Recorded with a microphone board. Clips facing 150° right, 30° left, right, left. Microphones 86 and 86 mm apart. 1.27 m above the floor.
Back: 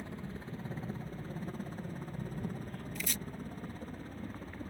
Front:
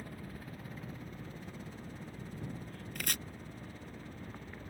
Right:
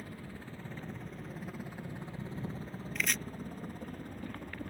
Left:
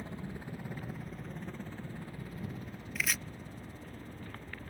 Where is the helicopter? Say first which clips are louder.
Back 3 dB, left 3 dB; 150° left; by 4.7 s 100° right.